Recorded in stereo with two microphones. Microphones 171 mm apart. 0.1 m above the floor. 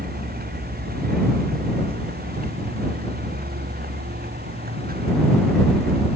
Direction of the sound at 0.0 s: 65° right (ahead or behind).